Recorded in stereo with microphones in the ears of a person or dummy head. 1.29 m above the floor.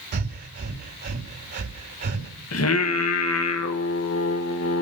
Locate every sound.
0.1 s breathing: 50° right (ahead or behind), 2.5 m
2.5 s singing: 75° left (ahead or behind), 1.6 m